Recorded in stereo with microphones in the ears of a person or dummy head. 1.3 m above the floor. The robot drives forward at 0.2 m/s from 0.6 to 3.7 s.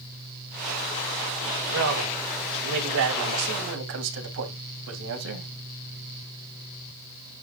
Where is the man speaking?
70° right (ahead or behind), 3 m; by 5.5 s 65° right (ahead or behind), 3 m.